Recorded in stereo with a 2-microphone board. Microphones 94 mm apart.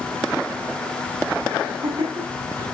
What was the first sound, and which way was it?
Laughter, 75° right (ahead or behind).